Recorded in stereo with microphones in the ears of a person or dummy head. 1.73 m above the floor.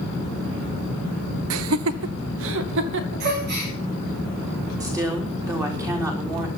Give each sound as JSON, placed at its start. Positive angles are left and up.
{"t": 1.5, "sound": "laughter", "side_deg": -80, "distance_m": 0.6}
{"t": 3.2, "sound": "a gasp", "side_deg": -55, "distance_m": 7.0}
{"t": 4.8, "sound": "a woman speaking", "side_deg": -15, "distance_m": 4.0}